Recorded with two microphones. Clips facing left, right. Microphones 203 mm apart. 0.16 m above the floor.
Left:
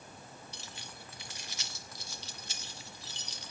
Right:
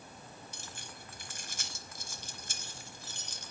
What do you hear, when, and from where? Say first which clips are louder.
0.5 s keys jangling: even; 50° right (ahead or behind), 1.7 m